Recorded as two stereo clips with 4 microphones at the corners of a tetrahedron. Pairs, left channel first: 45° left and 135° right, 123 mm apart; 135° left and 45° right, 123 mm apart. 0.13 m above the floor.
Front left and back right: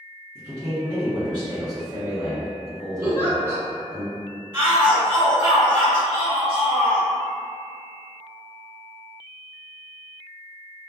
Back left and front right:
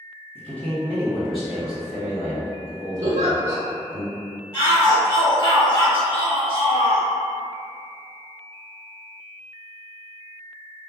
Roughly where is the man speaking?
Behind.